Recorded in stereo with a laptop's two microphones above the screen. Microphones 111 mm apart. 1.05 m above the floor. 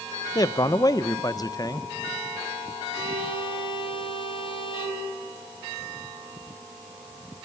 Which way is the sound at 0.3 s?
35° left (ahead or behind).